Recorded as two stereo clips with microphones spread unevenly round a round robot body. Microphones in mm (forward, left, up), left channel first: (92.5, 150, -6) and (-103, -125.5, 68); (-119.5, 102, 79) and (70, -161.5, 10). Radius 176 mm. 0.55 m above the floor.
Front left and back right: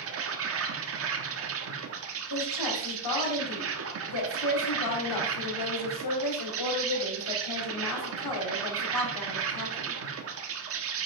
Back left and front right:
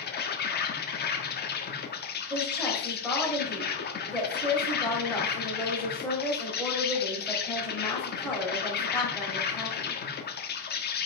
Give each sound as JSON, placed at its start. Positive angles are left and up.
{"t": 0.0, "sound": "an insect", "azimuth_deg": -170, "distance_m": 1.3}
{"t": 2.3, "sound": "a woman speaking", "azimuth_deg": 35, "distance_m": 3.0}